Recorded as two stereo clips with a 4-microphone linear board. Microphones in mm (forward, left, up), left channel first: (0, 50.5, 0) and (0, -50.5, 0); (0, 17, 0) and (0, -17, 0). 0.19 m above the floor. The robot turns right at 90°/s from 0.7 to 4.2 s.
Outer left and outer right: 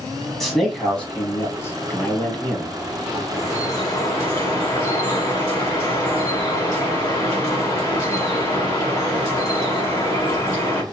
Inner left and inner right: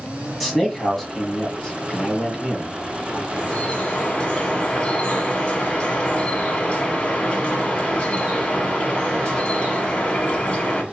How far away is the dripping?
About 1.1 m.